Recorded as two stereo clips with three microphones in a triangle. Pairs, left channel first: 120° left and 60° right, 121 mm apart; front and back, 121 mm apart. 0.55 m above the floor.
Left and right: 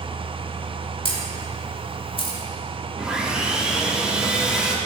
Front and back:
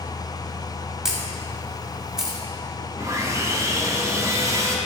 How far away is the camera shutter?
About 1.1 m.